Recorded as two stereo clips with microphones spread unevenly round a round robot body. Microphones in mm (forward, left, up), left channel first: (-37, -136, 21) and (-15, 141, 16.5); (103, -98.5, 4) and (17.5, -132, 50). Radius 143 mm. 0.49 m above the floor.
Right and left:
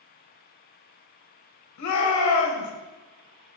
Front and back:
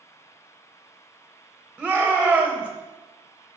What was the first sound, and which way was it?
A shout, 70° right.